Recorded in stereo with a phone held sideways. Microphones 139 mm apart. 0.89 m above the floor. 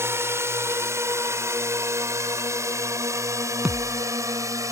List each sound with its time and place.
0.0 s a drone: 20° right (ahead or behind)
3.6 s a thud: 5° right (ahead or behind)